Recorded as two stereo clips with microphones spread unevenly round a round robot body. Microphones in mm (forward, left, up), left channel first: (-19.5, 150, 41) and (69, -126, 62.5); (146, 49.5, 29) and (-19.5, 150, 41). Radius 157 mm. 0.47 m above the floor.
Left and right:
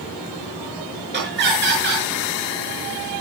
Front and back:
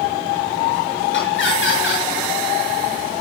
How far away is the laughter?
About 6.5 m.